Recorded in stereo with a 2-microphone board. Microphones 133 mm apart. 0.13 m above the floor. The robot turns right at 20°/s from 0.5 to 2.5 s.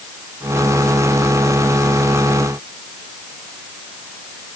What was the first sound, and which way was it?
Only background noise.